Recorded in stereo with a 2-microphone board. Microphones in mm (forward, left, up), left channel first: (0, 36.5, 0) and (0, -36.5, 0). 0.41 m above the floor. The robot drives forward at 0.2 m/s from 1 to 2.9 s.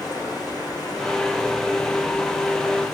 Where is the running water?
55° left (ahead or behind), 8 m.